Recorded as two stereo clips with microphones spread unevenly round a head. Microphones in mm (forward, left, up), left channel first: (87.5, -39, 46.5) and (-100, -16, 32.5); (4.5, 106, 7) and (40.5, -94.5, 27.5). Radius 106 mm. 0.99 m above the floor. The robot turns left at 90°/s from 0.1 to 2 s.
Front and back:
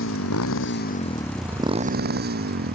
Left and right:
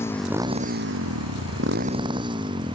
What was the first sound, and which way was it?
A motorcycle, 20° left.